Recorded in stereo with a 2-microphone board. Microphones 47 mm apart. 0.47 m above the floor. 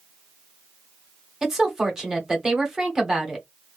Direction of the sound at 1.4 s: 10° right (ahead or behind).